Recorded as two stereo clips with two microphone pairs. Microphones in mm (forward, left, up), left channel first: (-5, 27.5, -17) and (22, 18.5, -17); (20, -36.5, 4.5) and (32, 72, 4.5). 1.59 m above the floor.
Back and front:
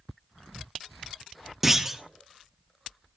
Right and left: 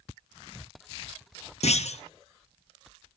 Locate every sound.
1.6 s a clunk: 100° right, 0.9 m